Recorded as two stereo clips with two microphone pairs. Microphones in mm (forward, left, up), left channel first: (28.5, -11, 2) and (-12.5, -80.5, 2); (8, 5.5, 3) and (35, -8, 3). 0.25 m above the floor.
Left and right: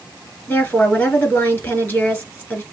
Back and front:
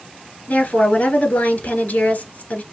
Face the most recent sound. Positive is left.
turn(degrees=130)